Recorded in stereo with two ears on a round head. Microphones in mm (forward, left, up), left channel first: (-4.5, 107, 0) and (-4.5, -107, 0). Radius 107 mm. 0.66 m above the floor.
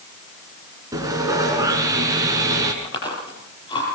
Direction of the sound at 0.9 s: 15° right (ahead or behind).